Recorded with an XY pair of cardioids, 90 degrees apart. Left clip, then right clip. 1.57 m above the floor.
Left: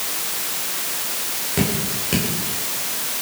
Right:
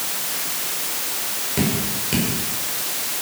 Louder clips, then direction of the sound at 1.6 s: Left 1 dB; 15° left.